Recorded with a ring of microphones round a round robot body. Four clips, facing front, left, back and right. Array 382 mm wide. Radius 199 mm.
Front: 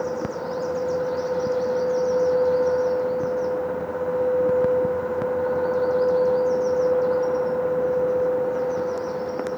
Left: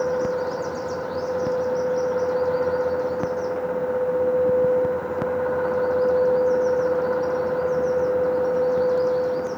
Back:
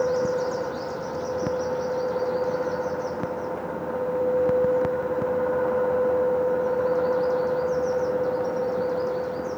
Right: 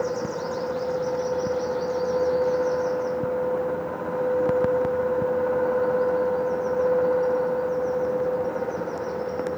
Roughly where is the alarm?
I don't hear an alarm.